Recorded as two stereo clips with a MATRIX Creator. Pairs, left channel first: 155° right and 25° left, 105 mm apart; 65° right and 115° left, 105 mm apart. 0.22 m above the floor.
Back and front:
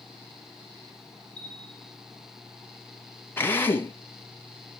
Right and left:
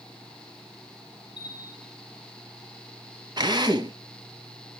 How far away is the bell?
About 8 m.